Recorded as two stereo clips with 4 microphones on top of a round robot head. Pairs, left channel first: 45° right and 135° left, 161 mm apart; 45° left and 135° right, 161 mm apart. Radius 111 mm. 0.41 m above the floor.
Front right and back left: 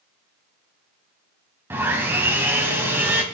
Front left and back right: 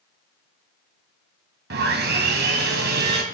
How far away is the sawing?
About 2 m.